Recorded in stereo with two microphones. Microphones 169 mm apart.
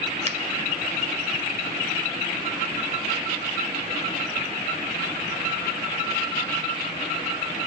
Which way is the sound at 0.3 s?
40° right (ahead or behind).